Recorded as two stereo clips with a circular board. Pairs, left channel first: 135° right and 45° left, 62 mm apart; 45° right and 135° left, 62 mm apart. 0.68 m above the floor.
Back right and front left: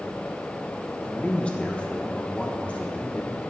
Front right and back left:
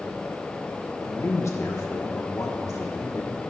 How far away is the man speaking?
About 1.3 m.